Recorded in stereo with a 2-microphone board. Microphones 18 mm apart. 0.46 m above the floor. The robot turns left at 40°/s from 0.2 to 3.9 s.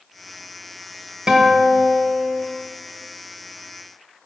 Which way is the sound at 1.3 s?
45° right.